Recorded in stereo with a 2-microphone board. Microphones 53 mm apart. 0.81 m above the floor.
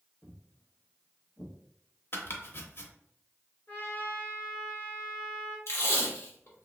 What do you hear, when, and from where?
0.2 s footsteps: 45° left (ahead or behind), 1.6 m; by 2.7 s 15° right (ahead or behind), 1.8 m
2.1 s chopping: 50° left (ahead or behind), 0.7 m
3.7 s a trumpet: 40° left (ahead or behind), 1.5 m
5.7 s tape being pulled: 60° left (ahead or behind), 1.1 m